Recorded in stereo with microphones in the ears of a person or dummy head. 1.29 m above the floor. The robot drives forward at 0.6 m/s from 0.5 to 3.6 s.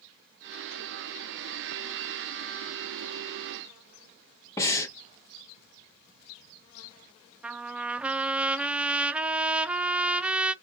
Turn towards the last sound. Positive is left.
turn(degrees=-5)  # may be behind; listen again after turning